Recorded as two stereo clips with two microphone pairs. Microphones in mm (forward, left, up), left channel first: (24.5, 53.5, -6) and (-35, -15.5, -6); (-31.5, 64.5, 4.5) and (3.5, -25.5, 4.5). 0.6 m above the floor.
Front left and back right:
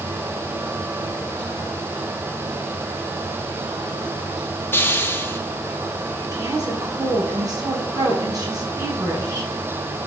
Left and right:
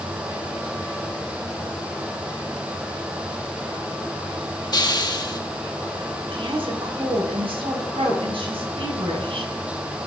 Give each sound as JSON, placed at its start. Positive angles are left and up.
{"t": 4.7, "sound": "a hiss", "azimuth_deg": 100, "distance_m": 1.0}
{"t": 6.3, "sound": "a woman speaking", "azimuth_deg": -85, "distance_m": 5.0}